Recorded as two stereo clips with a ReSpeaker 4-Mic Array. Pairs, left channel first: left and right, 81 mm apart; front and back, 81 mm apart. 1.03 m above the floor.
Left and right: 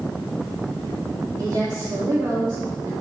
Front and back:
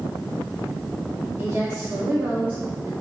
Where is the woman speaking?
115° right, 2.5 m; by 2.9 s 120° right, 1.4 m.